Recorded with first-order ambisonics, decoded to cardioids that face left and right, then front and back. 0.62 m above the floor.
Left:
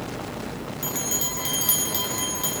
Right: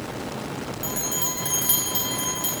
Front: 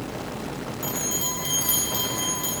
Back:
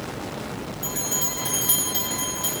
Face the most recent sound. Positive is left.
turn(degrees=75)